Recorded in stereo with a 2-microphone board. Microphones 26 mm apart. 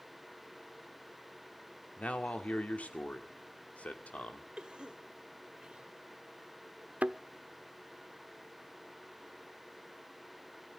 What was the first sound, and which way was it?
A man speaking, 65° left (ahead or behind).